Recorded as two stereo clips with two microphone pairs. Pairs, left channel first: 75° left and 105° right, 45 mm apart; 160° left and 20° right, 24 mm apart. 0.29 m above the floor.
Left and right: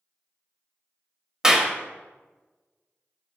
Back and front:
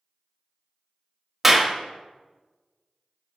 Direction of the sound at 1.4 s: 80° right.